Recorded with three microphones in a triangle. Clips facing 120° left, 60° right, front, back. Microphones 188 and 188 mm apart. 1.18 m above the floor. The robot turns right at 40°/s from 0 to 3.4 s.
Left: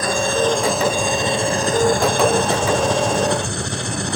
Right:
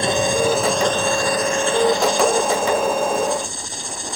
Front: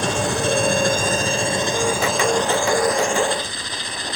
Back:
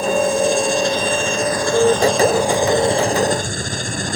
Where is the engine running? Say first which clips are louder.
Even, back 6 dB; 5° left; by 4.2 s 140° left.